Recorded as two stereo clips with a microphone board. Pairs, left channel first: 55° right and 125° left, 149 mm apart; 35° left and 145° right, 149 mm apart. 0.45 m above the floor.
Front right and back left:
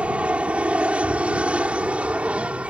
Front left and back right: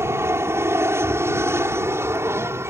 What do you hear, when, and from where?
0.0 s an aircraft: 170° right